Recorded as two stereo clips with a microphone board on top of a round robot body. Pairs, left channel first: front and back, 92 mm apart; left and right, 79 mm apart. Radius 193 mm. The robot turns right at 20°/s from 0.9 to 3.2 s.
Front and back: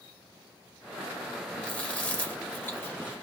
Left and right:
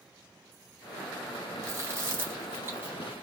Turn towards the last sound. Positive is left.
turn(degrees=-40)